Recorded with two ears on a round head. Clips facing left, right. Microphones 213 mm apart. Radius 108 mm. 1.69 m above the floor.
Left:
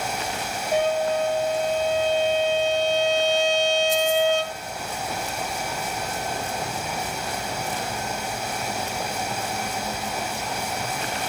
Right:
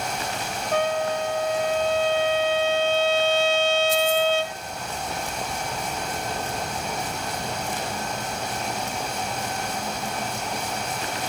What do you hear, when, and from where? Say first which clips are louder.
0.7 s a trumpet: left 2 dB; 15° left (ahead or behind), 1.4 m